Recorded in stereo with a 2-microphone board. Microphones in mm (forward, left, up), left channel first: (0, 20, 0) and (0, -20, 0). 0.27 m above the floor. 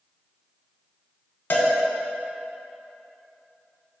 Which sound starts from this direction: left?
A cowbell, at 1.5 s.